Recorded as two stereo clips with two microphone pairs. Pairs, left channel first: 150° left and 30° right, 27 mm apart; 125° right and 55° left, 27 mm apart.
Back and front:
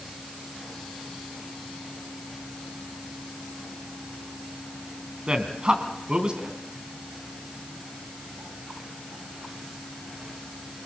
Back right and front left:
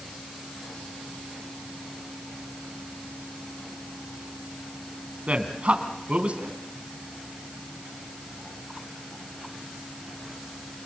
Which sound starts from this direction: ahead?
A man speaking, at 5.3 s.